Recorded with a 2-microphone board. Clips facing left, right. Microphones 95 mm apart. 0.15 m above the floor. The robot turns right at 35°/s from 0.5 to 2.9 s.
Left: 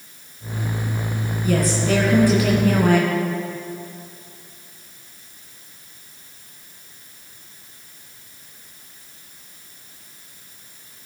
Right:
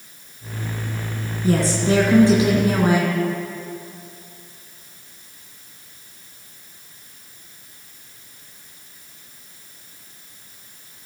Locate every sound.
1.4 s a woman speaking: 75° right, 1.9 m; by 3.1 s 25° right, 1.9 m